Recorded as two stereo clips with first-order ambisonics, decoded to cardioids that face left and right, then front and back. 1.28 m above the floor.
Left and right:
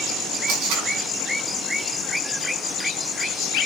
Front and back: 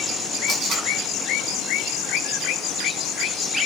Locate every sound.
0.5 s tape being pulled: 120° right, 5.5 m